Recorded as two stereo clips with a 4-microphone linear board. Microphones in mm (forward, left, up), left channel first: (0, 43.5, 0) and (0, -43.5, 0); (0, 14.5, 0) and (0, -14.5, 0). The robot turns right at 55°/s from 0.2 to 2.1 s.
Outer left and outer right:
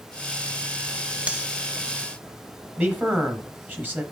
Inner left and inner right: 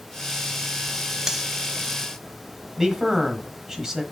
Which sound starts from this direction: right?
A man speaking, at 2.8 s.